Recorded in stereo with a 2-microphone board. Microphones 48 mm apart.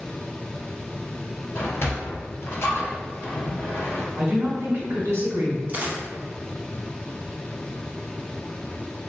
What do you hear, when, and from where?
1.6 s a sliding door: 55° left (ahead or behind), 0.8 m
4.2 s a woman speaking: 55° right (ahead or behind), 1.8 m
5.7 s a dropped coin: 35° right (ahead or behind), 1.0 m